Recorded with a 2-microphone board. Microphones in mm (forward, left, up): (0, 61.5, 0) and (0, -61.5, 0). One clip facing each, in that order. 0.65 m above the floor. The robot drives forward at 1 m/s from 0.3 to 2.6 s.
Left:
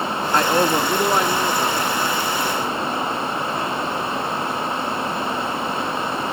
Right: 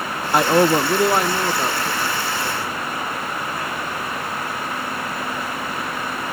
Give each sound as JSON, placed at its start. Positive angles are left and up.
{"t": 0.3, "sound": "a man speaking", "side_deg": -15, "distance_m": 0.5}